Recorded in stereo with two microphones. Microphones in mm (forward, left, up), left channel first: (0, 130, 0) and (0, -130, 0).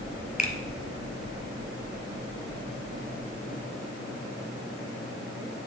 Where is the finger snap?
30° left (ahead or behind), 1.2 m.